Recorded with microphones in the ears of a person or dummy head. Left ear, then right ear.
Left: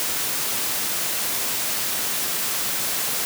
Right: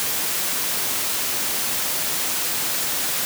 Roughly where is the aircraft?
No aircraft in this recording.